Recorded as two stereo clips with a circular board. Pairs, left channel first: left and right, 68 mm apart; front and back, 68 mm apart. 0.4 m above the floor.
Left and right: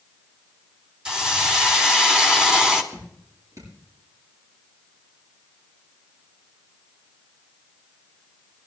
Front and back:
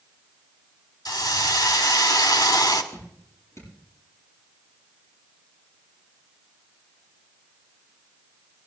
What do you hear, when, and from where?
1.1 s a hiss: 10° right, 1.9 m
2.9 s dripping: 45° right, 8 m